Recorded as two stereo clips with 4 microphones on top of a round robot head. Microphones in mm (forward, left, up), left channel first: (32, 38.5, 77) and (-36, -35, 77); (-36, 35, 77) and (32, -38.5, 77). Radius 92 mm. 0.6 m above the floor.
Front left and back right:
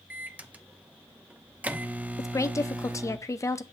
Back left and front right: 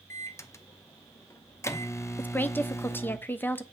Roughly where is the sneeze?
No sneeze in this recording.